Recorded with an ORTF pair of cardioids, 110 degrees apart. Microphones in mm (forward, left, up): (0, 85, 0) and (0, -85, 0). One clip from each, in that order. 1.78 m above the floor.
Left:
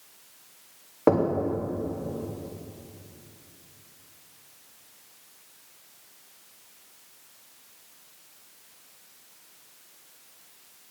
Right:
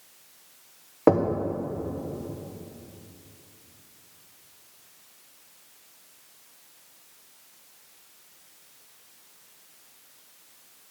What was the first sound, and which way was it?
Knocking, 10° right.